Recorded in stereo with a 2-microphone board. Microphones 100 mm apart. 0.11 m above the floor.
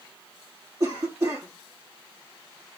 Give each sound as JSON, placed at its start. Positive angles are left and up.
{"t": 0.8, "sound": "a cough", "side_deg": -35, "distance_m": 2.5}